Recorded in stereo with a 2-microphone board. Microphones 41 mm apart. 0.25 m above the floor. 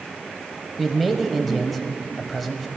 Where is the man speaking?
Centre (ahead or behind), 0.9 m.